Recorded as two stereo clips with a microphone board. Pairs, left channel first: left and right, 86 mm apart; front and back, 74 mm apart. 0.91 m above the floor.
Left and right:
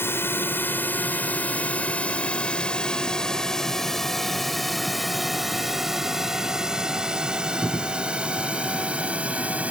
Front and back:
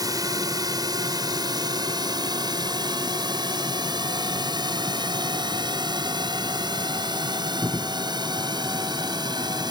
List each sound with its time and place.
0.0 s a drone: 150° left; by 9.7 s 165° right